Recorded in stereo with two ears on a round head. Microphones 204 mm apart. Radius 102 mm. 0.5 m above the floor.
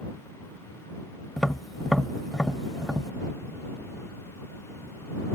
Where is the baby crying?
No baby crying in this recording.